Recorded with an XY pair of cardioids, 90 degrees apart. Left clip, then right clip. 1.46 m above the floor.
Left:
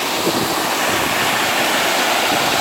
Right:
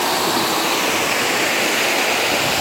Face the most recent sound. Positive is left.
No sound to turn to.